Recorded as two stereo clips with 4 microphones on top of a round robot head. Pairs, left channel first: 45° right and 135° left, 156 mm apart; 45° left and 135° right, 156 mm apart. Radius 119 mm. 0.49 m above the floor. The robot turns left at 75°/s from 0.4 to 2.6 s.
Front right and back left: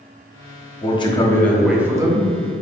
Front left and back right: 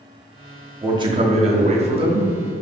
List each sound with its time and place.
0.8 s a man speaking: 75° right, 0.9 m; by 2.3 s 175° left, 0.9 m